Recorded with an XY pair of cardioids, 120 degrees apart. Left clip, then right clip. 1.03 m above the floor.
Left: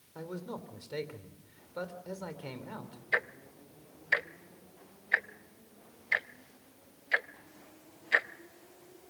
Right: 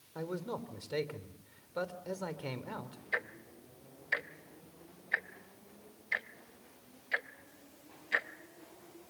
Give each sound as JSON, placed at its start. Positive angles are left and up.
{"t": 0.1, "sound": "a man speaking", "azimuth_deg": -20, "distance_m": 3.0}
{"t": 3.1, "sound": "ticking", "azimuth_deg": 25, "distance_m": 0.7}